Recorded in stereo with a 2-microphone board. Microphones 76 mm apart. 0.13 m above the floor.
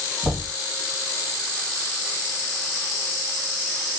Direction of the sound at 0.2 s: 30° right (ahead or behind).